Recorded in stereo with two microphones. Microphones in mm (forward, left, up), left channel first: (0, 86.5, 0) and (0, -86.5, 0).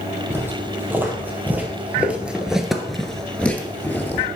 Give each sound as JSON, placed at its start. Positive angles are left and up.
{"t": 0.3, "sound": "footsteps", "side_deg": -15, "distance_m": 1.8}